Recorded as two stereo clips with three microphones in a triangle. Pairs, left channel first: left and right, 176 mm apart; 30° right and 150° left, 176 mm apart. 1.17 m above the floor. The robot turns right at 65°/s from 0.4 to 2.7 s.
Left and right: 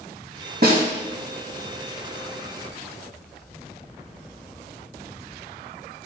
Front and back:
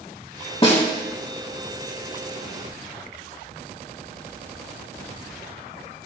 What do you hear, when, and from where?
0.6 s a snare drum: 85° right, 1.8 m; by 0.8 s 70° right, 1.8 m